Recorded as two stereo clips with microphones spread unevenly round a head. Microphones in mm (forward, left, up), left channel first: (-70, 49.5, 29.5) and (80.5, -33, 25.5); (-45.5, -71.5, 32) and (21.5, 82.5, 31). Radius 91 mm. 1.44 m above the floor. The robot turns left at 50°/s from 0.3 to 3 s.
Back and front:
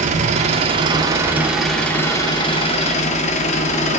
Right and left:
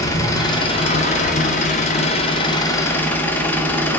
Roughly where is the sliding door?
No sliding door in this recording.